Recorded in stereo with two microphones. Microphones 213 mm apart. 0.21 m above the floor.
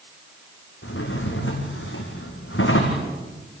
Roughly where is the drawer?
Left.